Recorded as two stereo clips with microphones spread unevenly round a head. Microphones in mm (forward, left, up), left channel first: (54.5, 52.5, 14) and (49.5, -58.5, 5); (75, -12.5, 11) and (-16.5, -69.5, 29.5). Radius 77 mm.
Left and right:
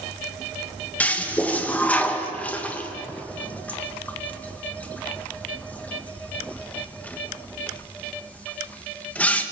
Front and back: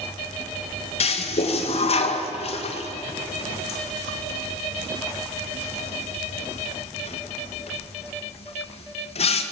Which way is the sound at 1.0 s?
10° left.